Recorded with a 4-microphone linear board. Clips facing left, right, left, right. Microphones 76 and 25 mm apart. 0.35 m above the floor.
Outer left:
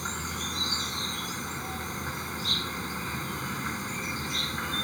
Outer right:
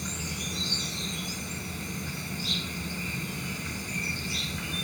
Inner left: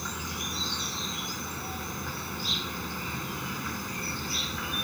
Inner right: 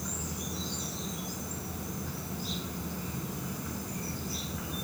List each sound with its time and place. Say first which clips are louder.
0.0 s an insect: outer left 2 dB, inner left 4 dB; 45° left (ahead or behind)